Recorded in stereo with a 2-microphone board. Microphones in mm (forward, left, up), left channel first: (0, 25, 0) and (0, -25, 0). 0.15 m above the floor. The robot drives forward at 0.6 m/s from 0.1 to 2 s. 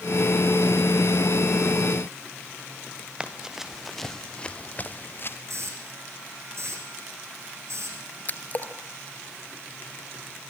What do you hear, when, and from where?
3.2 s running footsteps: 20° right (ahead or behind), 2.5 m; by 5.4 s 50° left (ahead or behind), 2.5 m
5.5 s a hiss: 60° right (ahead or behind), 8.5 m
8.3 s a splash: 35° left (ahead or behind), 1.8 m